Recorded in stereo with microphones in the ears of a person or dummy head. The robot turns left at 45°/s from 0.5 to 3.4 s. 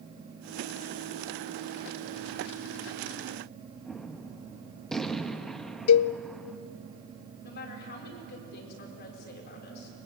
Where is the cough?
I don't hear a cough.